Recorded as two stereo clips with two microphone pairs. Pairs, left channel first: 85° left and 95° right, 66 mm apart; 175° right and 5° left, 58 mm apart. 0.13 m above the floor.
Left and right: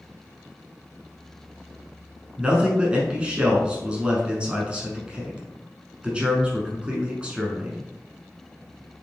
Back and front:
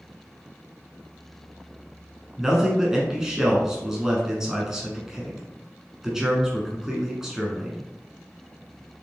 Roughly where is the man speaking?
Ahead right.